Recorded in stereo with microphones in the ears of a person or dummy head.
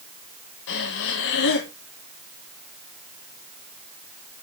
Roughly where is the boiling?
No boiling in this recording.